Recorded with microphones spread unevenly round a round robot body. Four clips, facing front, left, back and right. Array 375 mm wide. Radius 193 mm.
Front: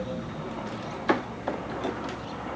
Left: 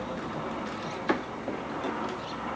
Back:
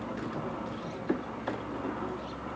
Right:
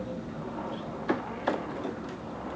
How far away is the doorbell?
I don't hear a doorbell.